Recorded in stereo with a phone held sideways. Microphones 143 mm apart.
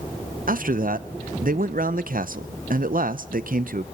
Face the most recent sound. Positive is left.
turn(degrees=-75)  # may be behind; listen again after turning